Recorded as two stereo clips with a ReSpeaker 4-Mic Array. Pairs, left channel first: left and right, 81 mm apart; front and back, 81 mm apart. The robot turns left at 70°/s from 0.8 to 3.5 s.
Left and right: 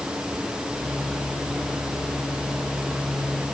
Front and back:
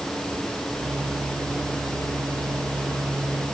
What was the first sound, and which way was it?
Only background noise.